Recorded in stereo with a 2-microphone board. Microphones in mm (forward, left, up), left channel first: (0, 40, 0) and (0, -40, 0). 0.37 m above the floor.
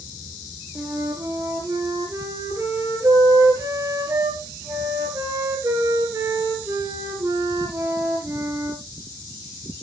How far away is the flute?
About 3 m.